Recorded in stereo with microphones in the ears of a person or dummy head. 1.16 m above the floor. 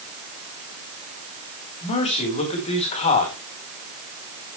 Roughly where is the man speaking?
Left.